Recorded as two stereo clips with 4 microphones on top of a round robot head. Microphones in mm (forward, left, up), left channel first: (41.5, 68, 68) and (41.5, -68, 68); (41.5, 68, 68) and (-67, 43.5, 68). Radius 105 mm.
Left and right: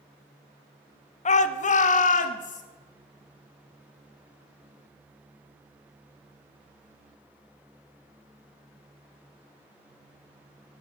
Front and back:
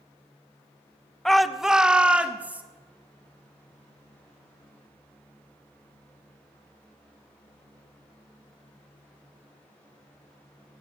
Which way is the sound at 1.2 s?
100° left.